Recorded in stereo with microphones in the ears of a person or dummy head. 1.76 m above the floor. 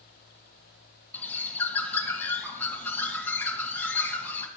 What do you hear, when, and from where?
1.1 s a bird: 10° left (ahead or behind), 1.6 m